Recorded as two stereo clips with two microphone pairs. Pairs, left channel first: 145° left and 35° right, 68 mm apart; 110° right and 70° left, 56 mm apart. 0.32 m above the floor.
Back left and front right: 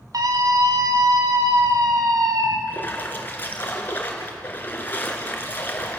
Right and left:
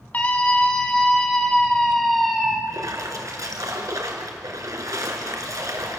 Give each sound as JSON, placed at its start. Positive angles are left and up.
{"t": 0.1, "sound": "a scream", "azimuth_deg": -50, "distance_m": 2.5}
{"t": 2.7, "sound": "a splash", "azimuth_deg": 85, "distance_m": 2.5}